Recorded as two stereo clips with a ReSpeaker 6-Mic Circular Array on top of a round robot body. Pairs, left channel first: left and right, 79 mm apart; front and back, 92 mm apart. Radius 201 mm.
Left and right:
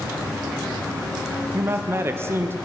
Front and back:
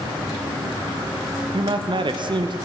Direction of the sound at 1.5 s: 150° right.